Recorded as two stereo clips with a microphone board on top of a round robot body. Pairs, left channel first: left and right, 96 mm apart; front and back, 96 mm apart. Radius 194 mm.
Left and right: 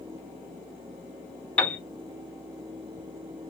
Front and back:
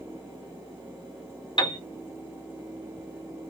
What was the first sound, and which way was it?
A piano, 15° left.